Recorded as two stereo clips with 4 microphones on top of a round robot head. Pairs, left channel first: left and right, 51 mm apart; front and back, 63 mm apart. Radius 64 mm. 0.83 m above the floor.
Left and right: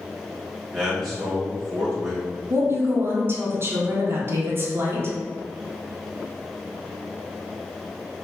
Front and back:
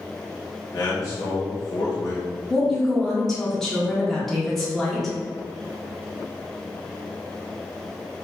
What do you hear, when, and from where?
0.7 s a man speaking: 5° right, 1.9 m
2.5 s a woman speaking: 80° right, 1.4 m